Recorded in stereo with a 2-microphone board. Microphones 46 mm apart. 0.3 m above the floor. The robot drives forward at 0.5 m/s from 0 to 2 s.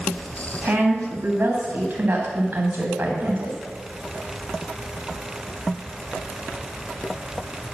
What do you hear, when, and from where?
0.6 s a woman speaking: 50° right (ahead or behind), 2 m